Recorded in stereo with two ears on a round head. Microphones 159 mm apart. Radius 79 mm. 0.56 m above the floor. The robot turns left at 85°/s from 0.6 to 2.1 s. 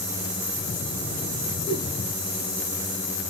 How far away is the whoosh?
About 5 m.